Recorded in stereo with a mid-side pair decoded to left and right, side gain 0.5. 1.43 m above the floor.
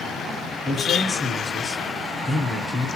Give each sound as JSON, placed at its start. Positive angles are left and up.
{"t": 0.7, "sound": "a man speaking", "azimuth_deg": 15, "distance_m": 1.1}